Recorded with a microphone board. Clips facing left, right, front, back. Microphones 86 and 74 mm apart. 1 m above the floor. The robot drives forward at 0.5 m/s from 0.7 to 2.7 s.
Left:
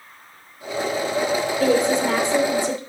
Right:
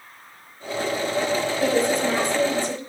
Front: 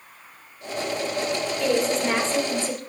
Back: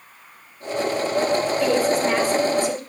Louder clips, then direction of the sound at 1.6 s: Left 3 dB, even; 95° left.